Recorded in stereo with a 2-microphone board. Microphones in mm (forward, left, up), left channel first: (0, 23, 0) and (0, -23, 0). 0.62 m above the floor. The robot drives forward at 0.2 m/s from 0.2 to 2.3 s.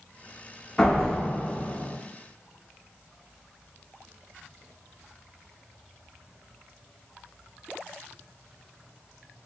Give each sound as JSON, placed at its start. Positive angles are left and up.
{"t": 0.8, "sound": "a door slam", "side_deg": 10, "distance_m": 0.8}